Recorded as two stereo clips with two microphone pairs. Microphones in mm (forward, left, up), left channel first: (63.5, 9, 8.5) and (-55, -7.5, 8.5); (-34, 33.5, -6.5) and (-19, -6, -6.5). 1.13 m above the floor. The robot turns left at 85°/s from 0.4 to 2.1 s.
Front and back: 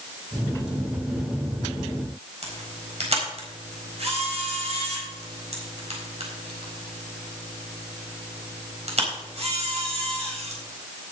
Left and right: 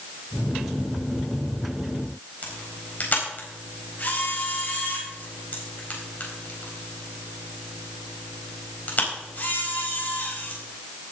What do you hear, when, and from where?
2.4 s a camera shutter: 160° left, 4 m